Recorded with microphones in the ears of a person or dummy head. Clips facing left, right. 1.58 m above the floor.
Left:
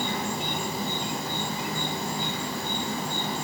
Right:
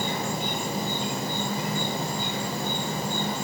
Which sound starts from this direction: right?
An insect, at 0.0 s.